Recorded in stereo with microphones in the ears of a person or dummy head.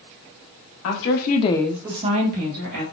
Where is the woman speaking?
70° left (ahead or behind), 0.9 m; by 2.8 s 45° right (ahead or behind), 1.4 m.